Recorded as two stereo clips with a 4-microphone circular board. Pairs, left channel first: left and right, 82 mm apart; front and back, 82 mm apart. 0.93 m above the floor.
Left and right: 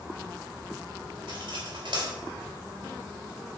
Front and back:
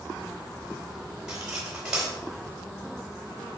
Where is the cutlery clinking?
100° right, 3.5 m.